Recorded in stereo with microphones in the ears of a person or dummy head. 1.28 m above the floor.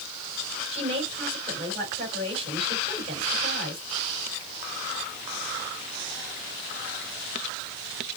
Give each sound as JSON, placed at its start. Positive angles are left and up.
{"t": 0.7, "sound": "a woman speaking", "side_deg": -40, "distance_m": 4.0}